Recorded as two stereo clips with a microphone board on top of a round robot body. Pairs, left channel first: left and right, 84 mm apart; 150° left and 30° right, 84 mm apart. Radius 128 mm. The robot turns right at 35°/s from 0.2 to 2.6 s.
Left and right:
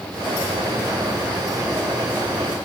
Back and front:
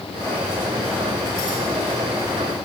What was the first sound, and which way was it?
Only background noise.